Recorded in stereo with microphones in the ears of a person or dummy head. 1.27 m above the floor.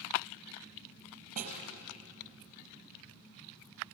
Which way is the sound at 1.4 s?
45° right (ahead or behind).